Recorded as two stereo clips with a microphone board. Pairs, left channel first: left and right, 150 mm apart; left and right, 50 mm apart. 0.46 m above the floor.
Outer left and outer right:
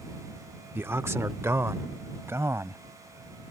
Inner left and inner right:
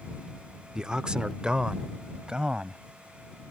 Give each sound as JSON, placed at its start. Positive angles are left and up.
{"t": 0.8, "sound": "a man speaking", "side_deg": -15}